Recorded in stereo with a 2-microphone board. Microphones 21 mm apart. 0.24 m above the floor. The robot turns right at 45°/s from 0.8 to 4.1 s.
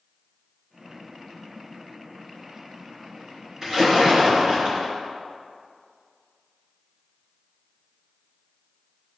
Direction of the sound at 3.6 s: 25° right (ahead or behind).